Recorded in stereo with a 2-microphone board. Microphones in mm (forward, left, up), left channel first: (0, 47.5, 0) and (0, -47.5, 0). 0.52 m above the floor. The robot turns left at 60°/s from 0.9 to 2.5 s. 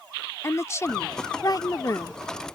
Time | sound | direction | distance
0.4 | a woman speaking | 125° left | ?